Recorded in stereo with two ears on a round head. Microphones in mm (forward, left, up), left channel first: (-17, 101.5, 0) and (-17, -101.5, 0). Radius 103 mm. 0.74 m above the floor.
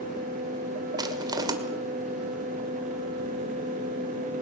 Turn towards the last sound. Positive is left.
turn(degrees=-15)  # may be behind; listen again after turning